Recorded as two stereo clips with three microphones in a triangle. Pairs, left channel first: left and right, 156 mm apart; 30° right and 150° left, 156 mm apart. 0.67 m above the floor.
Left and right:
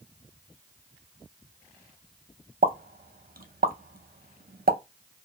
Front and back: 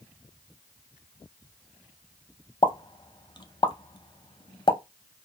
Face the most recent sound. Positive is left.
turn(degrees=-90)